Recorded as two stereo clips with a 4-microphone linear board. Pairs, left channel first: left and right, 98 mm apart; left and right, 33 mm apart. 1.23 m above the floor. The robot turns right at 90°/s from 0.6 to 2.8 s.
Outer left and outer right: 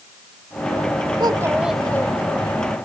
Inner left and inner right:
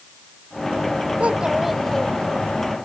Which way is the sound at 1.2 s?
50° right.